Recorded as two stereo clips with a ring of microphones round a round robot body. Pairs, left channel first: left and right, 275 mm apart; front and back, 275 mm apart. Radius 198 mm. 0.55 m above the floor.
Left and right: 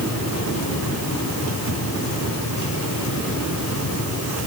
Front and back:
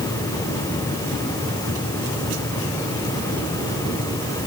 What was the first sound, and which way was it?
Only background noise.